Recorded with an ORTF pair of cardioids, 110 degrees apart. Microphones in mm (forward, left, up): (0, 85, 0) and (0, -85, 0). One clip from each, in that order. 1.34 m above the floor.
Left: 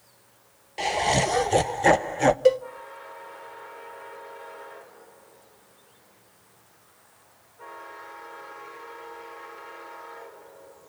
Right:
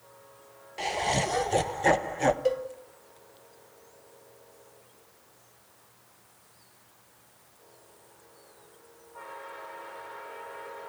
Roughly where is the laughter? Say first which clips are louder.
Left 5 dB; ahead left.